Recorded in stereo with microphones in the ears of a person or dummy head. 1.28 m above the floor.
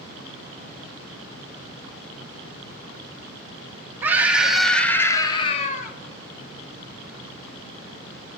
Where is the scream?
20° right (ahead or behind), 1.2 m; by 5.9 s 50° left (ahead or behind), 0.9 m.